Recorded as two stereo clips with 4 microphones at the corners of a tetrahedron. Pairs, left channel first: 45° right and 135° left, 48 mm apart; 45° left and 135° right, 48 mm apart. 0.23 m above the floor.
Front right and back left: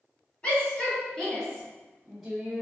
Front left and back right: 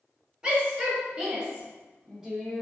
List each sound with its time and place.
0.4 s a shout: 85° right, 1.7 m; by 2.6 s 170° left, 1.5 m